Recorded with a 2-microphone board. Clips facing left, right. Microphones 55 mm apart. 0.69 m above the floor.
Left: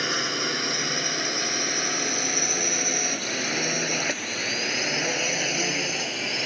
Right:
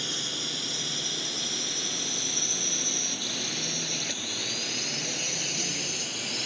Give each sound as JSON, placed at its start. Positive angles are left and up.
{"t": 0.0, "sound": "a drone", "side_deg": 65}